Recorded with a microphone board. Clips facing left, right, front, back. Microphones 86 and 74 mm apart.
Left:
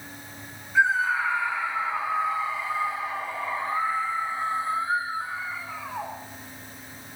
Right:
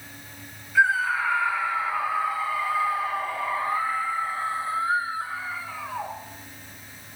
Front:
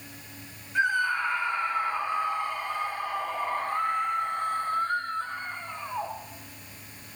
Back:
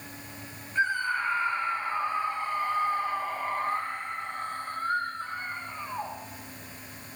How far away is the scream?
About 7 m.